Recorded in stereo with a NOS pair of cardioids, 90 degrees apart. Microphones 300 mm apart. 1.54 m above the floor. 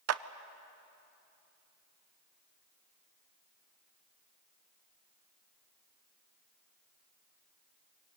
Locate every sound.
0.1 s a clap: 55° right, 0.8 m